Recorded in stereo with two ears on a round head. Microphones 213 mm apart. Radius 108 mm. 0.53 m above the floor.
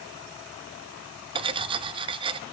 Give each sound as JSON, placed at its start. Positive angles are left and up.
{"t": 1.4, "sound": "cutlery clinking", "side_deg": -20, "distance_m": 0.5}